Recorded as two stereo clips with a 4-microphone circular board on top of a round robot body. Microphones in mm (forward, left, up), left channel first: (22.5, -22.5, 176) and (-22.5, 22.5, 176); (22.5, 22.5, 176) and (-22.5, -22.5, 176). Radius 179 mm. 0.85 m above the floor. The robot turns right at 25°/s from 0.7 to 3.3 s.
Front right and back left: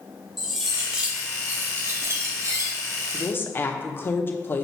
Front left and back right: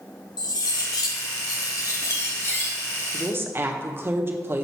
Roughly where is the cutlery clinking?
Ahead left.